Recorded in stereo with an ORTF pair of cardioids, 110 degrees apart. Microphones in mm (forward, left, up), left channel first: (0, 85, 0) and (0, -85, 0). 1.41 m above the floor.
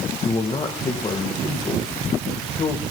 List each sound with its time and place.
0.2 s a man speaking: 25° left, 1.6 m